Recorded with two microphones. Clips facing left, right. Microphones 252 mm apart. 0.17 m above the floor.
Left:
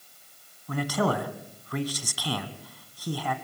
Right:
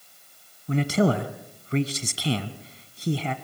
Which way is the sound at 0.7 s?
25° right (ahead or behind).